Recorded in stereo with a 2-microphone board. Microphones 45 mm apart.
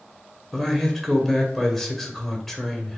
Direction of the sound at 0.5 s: 5° left (ahead or behind).